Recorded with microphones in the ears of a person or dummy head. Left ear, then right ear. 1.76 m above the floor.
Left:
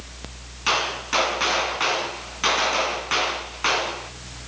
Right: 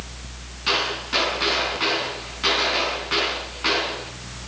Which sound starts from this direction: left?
A gunshot, at 0.7 s.